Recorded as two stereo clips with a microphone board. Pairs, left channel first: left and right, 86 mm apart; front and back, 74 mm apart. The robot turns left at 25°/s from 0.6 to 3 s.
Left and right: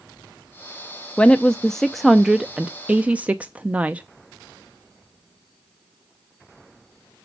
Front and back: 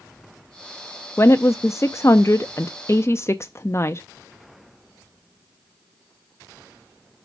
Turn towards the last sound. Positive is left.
turn(degrees=-25)